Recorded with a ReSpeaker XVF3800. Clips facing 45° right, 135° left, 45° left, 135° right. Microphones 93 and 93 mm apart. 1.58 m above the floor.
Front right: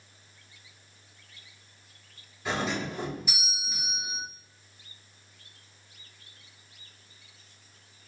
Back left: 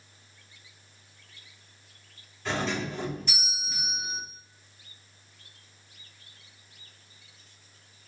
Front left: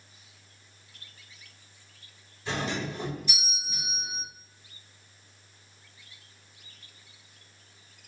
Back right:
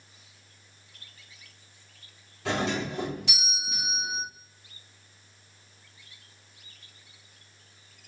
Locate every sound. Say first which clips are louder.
2.5 s a doorbell: even, back right 3 dB; 125° right, 3.5 m